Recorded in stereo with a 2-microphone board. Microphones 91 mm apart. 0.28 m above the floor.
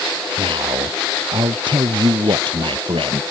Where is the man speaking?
65° right (ahead or behind).